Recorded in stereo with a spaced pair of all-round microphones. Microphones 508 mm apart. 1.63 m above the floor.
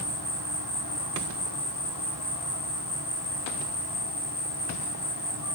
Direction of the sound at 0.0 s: 50° right (ahead or behind).